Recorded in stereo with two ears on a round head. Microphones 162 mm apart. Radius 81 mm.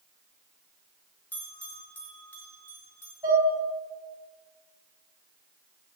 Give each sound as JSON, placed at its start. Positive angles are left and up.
{"t": 1.3, "sound": "a bell", "side_deg": 10, "distance_m": 3.0}
{"t": 3.2, "sound": "dishes clattering", "side_deg": -15, "distance_m": 5.0}